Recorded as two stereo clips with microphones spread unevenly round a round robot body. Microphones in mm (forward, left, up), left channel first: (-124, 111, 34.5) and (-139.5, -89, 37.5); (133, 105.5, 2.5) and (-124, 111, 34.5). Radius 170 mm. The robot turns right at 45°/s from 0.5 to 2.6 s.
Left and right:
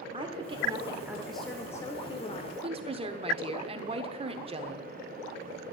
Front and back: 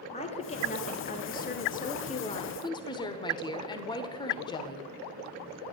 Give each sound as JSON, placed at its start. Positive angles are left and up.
{"t": 0.1, "sound": "a woman speaking", "azimuth_deg": -40, "distance_m": 0.9}
{"t": 2.6, "sound": "a woman speaking", "azimuth_deg": -50, "distance_m": 0.8}